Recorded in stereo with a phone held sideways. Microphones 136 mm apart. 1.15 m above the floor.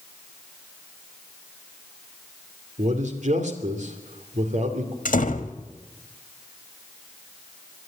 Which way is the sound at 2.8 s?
65° right (ahead or behind).